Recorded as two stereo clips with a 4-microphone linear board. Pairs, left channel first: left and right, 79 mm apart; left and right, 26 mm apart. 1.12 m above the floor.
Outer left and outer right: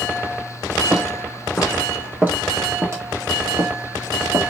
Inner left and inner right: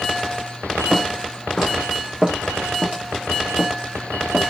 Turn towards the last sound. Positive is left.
turn(degrees=-60)  # may be behind; listen again after turning